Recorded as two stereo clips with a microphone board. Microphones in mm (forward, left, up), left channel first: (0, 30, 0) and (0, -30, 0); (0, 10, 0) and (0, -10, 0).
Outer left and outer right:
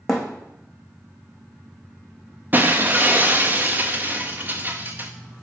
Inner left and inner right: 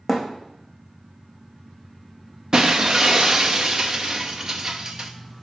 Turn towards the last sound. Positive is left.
turn(degrees=-30)  # may be behind; listen again after turning